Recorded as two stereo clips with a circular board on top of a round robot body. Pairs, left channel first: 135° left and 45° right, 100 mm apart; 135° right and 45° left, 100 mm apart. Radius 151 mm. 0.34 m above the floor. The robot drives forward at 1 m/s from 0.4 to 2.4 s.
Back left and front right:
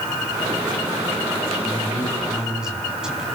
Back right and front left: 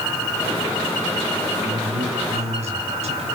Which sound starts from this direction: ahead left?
A man speaking, at 1.6 s.